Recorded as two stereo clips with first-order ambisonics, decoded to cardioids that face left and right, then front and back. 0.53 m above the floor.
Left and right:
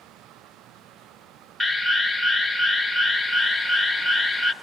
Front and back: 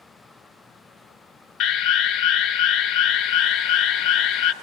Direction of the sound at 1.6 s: 5° left.